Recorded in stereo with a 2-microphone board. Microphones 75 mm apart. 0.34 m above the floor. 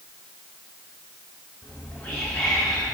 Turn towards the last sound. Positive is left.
turn(degrees=30)  # may be behind; listen again after turning